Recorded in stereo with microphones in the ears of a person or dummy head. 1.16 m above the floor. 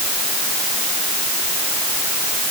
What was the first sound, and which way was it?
Only background noise.